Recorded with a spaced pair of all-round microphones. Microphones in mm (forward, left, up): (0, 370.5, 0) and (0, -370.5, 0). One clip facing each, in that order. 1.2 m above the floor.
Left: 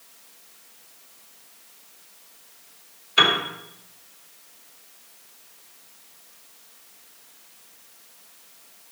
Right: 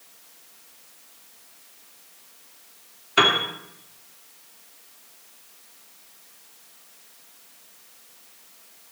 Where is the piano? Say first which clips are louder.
Right 2 dB; 70° right (ahead or behind), 2.5 m.